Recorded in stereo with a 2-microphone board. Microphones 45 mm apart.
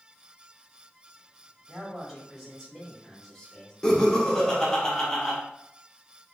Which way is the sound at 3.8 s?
15° left (ahead or behind).